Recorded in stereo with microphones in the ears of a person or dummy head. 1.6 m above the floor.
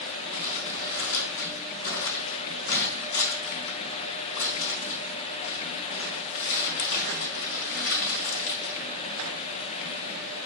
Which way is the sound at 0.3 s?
70° left (ahead or behind).